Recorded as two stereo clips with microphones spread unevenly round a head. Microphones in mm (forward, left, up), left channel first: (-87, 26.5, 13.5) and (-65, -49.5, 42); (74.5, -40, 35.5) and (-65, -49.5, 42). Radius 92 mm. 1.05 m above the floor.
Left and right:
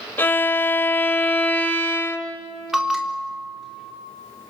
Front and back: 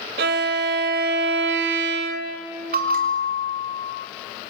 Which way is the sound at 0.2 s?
175° left.